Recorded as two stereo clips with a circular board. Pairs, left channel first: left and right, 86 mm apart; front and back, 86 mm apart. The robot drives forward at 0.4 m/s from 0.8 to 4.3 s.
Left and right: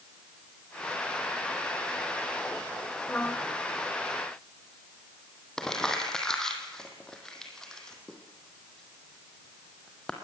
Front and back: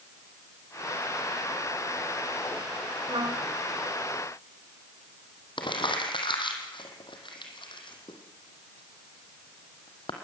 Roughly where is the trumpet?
Behind.